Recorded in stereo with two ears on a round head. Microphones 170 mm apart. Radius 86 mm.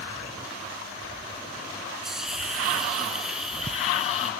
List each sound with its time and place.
2.0 s a hiss: 5° right (ahead or behind), 1.6 m